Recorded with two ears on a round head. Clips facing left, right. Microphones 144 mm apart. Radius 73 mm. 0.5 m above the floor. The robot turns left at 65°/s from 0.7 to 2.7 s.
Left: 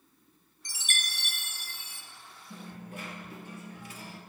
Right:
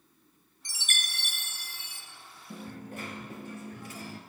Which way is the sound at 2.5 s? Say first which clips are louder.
Right 3 dB; 50° right (ahead or behind).